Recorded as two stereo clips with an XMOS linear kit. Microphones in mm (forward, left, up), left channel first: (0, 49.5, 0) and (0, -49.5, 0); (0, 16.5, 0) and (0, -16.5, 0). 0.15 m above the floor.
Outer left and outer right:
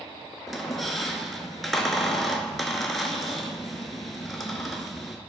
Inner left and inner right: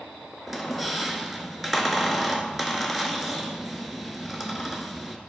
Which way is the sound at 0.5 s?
Centre (ahead or behind).